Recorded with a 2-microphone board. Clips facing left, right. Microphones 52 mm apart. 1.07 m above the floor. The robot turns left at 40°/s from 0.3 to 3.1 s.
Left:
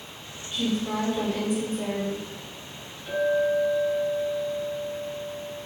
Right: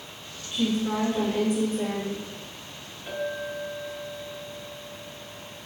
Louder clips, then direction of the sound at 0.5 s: Right 1 dB; 5° right.